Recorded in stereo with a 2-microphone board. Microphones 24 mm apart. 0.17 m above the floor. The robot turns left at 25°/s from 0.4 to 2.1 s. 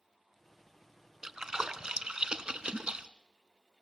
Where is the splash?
30° right (ahead or behind), 0.7 m; by 3.1 s 45° right (ahead or behind), 0.7 m.